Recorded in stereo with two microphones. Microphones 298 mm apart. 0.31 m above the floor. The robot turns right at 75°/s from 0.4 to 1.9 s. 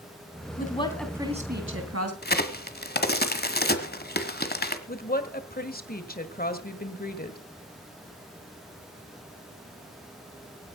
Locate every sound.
0.6 s a woman speaking: 145° left, 3 m; by 2.1 s 115° right, 3 m
2.2 s a crack: 35° left (ahead or behind), 1.2 m
4.9 s a woman speaking: 30° left (ahead or behind), 1.5 m